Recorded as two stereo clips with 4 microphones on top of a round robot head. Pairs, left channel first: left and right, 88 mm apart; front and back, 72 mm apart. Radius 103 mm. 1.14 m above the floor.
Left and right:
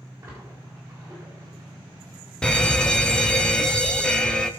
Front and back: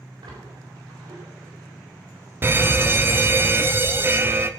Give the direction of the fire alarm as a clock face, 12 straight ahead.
7 o'clock.